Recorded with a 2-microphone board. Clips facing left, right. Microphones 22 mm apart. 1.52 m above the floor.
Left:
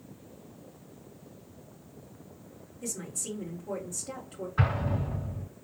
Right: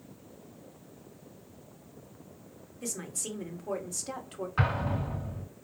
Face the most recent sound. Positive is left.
turn(degrees=-85)